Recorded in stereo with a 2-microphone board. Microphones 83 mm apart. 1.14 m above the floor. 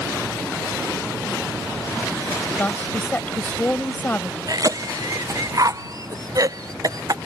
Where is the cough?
45° right (ahead or behind).